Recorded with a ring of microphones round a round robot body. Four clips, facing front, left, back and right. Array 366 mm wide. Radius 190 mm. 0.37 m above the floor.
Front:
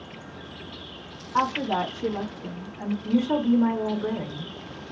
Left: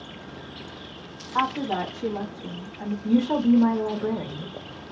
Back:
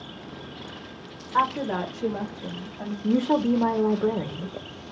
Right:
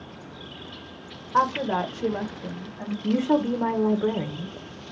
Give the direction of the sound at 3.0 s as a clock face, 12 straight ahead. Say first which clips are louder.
Left 2 dB, back 1 dB; 5 o'clock.